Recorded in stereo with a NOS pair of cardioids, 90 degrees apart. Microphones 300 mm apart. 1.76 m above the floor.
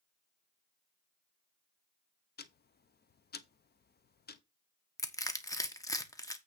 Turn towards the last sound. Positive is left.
turn(degrees=10)